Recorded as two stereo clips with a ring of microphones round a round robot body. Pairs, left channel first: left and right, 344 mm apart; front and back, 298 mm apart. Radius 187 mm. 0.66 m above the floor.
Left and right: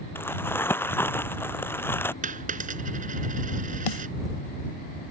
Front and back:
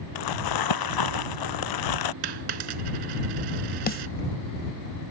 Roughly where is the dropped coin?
Behind.